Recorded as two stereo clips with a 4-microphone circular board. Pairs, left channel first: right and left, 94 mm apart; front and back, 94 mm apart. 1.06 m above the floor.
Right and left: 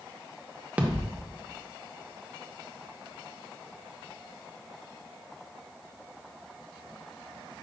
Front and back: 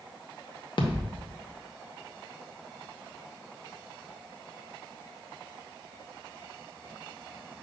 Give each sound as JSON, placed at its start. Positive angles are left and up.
{"t": 0.8, "sound": "a thud", "azimuth_deg": 20, "distance_m": 0.6}